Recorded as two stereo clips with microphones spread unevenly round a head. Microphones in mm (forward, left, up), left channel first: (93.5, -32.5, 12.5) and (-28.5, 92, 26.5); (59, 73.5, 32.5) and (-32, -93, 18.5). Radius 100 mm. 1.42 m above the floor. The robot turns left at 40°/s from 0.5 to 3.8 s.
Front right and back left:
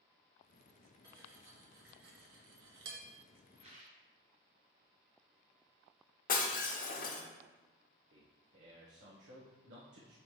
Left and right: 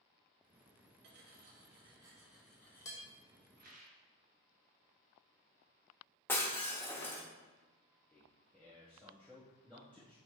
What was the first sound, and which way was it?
Cutlery clinking, 155° right.